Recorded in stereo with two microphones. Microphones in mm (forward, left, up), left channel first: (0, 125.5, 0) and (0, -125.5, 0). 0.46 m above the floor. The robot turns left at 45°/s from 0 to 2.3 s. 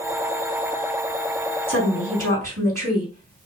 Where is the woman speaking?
55° right (ahead or behind), 3.5 m; by 3.5 s 70° right (ahead or behind), 3.5 m.